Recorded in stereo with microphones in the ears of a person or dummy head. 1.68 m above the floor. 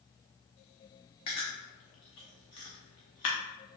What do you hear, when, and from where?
1.3 s chewing: 30° left (ahead or behind), 0.8 m